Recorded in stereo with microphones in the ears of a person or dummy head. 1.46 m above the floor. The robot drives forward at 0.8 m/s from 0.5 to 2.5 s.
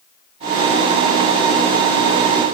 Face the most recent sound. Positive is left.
No sound to turn to.